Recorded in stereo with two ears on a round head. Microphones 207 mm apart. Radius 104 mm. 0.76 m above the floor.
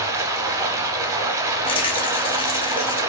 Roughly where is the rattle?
Left.